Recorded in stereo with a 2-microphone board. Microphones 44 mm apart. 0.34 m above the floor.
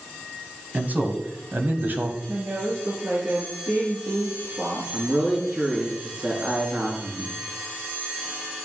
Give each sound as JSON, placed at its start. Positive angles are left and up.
{"t": 0.7, "sound": "a man speaking", "side_deg": -40, "distance_m": 2.5}
{"t": 2.3, "sound": "a woman speaking", "side_deg": -65, "distance_m": 6.0}
{"t": 4.9, "sound": "a man speaking", "side_deg": -30, "distance_m": 4.0}